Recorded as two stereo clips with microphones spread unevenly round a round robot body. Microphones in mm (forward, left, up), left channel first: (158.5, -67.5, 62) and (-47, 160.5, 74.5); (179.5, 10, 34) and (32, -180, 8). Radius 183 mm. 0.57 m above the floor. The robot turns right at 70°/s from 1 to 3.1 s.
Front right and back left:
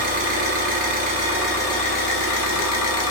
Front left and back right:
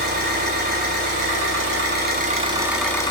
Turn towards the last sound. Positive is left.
turn(degrees=-20)